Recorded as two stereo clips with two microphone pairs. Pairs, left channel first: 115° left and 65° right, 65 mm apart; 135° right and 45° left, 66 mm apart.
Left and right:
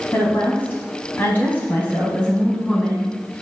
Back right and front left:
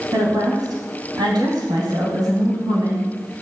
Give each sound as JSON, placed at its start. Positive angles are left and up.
{"t": 0.1, "sound": "a woman speaking", "azimuth_deg": 55, "distance_m": 4.0}